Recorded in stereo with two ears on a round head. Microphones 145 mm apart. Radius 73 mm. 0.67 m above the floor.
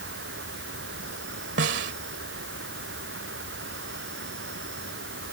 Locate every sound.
0.0 s an insect: 75° right (ahead or behind)
1.6 s a snare drum: 80° right